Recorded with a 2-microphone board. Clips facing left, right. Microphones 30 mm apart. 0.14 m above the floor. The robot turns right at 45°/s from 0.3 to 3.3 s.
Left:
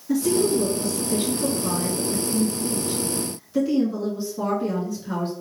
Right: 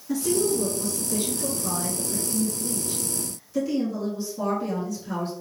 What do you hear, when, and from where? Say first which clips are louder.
0.1 s a woman speaking: left 3 dB; 10° left, 1.5 m; by 5.3 s 145° left, 1.5 m